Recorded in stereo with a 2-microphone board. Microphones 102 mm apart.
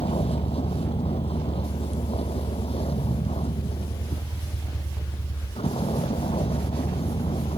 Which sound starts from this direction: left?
A vehicle, at 0.0 s.